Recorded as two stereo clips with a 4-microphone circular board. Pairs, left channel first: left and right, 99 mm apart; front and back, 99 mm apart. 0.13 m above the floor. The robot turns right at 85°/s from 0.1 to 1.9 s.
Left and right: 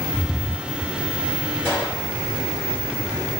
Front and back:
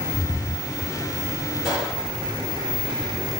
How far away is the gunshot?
About 1.8 m.